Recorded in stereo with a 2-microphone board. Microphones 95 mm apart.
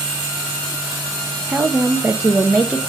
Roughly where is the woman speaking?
Centre.